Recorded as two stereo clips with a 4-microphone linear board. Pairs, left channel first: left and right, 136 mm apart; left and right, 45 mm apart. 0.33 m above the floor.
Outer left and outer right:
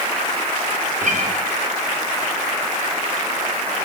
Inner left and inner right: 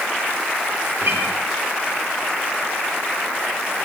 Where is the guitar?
65° right (ahead or behind), 6.5 m.